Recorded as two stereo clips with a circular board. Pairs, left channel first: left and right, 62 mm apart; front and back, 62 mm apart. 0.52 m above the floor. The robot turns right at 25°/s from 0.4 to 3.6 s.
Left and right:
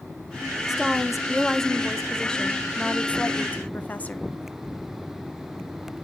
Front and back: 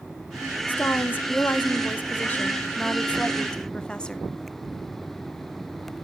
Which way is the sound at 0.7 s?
15° right.